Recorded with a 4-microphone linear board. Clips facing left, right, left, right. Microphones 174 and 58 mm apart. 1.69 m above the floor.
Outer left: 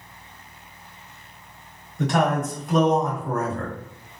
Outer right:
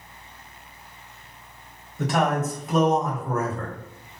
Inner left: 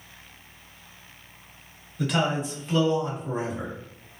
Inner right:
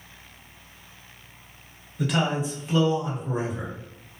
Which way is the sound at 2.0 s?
Centre (ahead or behind).